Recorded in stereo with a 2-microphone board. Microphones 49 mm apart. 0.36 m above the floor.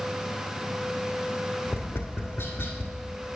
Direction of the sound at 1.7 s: 55° left (ahead or behind).